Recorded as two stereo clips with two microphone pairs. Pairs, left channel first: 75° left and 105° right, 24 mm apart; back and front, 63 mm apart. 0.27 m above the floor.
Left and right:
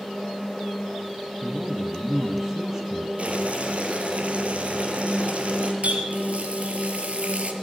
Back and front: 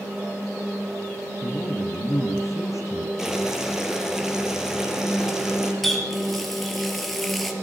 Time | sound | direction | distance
1.4 | a man speaking | 175° right | 2.5 m
3.2 | boiling | 80° right | 4 m
5.8 | a running tap | 95° right | 3.5 m